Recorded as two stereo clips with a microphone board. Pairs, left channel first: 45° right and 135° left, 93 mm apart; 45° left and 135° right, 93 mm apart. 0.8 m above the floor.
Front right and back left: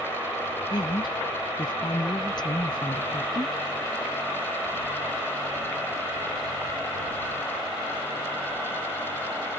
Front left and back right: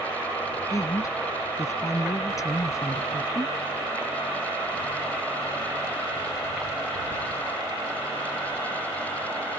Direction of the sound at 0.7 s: 10° right.